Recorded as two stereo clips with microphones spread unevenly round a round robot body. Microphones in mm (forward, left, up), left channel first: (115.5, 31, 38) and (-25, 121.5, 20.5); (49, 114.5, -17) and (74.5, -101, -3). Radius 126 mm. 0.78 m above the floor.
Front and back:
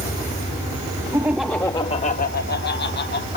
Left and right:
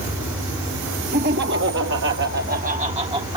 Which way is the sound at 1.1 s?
140° right.